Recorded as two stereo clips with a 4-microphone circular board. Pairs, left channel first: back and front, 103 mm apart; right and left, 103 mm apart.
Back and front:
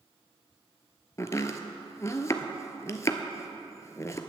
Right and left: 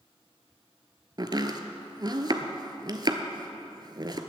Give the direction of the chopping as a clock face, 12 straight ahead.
8 o'clock.